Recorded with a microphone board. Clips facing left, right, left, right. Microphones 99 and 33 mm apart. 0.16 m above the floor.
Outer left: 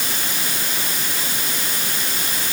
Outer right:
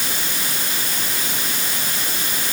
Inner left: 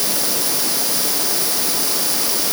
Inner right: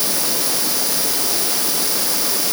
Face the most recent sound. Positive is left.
No sound to turn to.